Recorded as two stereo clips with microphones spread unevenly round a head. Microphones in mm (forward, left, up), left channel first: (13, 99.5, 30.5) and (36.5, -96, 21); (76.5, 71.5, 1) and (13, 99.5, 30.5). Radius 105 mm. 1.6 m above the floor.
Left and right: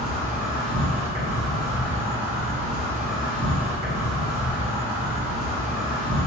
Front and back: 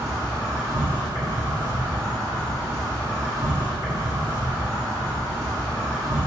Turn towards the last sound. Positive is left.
turn(degrees=-140)